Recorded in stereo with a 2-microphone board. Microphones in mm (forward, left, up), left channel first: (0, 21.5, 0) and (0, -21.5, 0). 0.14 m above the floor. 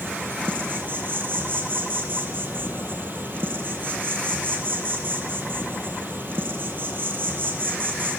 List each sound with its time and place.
0.0 s an insect: 55° right (ahead or behind), 0.8 m